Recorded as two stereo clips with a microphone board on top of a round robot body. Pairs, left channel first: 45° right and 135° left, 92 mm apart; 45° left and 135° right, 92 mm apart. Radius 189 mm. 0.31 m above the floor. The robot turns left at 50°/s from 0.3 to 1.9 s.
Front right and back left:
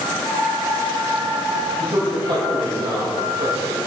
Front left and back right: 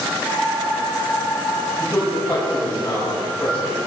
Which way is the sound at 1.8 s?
120° left.